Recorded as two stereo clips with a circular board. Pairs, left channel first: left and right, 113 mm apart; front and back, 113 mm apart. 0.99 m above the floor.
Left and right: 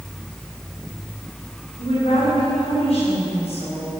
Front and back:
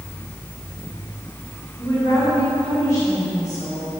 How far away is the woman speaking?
About 5 m.